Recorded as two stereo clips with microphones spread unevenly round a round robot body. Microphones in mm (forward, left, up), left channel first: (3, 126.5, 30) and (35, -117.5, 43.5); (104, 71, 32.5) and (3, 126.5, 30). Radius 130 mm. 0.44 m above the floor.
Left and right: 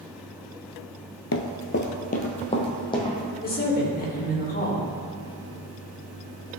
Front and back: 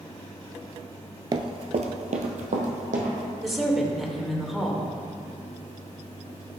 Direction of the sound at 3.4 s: 65° left.